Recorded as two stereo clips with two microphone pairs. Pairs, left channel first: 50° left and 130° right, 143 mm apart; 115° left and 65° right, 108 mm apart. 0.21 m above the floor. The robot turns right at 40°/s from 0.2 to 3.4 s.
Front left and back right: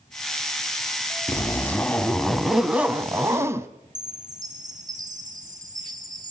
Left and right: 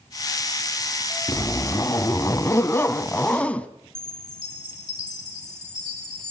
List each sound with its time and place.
1.3 s a zipper: 95° left, 1.0 m; by 3.7 s straight behind, 1.0 m
4.0 s a chime: 170° left, 4.5 m